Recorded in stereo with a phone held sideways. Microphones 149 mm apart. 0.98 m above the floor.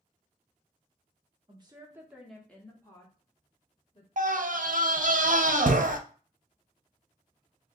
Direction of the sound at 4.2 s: 65° right (ahead or behind).